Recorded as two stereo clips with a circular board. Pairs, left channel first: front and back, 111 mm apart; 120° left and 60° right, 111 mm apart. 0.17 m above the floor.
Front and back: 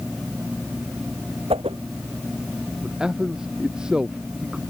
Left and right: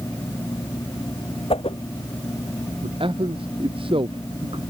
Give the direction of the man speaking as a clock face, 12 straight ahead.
3 o'clock.